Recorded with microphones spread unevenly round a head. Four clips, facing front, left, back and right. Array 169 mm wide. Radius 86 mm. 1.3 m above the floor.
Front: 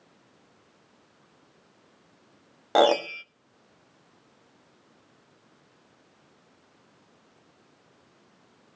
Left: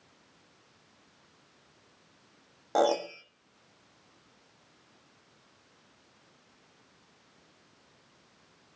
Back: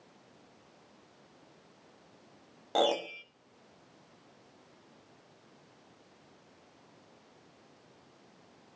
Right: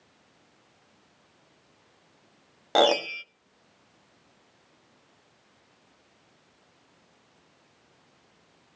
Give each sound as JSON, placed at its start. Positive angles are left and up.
{"t": 2.8, "sound": "a piano", "azimuth_deg": -10, "distance_m": 1.0}